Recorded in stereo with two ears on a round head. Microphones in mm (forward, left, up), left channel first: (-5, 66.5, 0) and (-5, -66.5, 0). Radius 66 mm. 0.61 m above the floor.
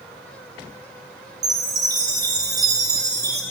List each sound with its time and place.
1.4 s a chime: 25° right (ahead or behind), 0.6 m